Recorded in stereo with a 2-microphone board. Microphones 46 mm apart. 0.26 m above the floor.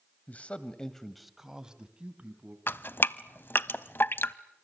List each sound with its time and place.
0.3 s a man speaking: 35° left (ahead or behind), 1.7 m; by 2.6 s 30° right (ahead or behind), 3 m
2.7 s dripping: 50° left (ahead or behind), 0.7 m